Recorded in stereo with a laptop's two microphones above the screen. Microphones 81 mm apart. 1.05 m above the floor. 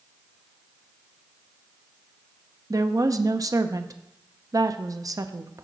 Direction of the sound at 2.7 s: 45° right (ahead or behind).